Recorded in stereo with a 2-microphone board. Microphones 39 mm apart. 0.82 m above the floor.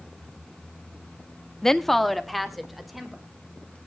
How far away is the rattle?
I don't hear a rattle.